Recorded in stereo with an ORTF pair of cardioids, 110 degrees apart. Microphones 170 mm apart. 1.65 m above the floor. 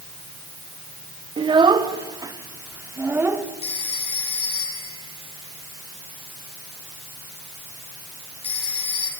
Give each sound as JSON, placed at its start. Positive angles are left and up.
{"t": 1.4, "sound": "a child speaking", "azimuth_deg": -30, "distance_m": 2.5}
{"t": 3.6, "sound": "a phone ringing", "azimuth_deg": 35, "distance_m": 6.5}